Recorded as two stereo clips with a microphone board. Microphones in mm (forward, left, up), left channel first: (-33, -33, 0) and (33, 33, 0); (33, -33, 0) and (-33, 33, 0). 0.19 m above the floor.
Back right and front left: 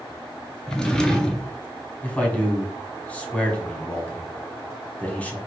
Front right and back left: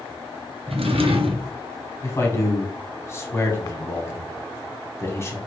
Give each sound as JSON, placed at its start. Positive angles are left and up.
{"t": 0.7, "sound": "a drawer", "azimuth_deg": 145, "distance_m": 0.6}
{"t": 2.0, "sound": "a man speaking", "azimuth_deg": -70, "distance_m": 1.1}